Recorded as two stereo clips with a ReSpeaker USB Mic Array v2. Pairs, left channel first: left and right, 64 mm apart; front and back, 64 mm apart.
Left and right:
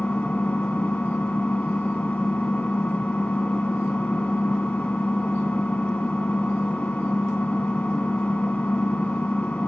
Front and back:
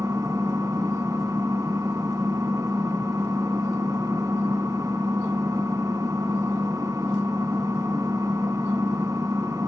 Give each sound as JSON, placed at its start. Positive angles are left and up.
{"t": 0.0, "sound": "an engine running", "azimuth_deg": 155, "distance_m": 2.0}